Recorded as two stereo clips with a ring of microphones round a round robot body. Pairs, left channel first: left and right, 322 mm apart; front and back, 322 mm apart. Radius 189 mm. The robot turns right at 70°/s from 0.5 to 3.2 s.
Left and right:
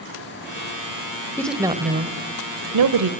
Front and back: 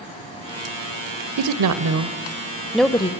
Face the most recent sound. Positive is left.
turn(degrees=-60)